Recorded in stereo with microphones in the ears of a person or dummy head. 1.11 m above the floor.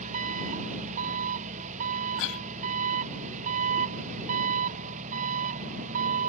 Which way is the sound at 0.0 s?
40° right (ahead or behind).